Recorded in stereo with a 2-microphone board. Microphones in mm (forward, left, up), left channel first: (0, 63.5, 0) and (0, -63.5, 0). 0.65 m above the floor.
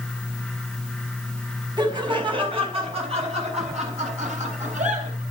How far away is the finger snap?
No finger snap in this recording.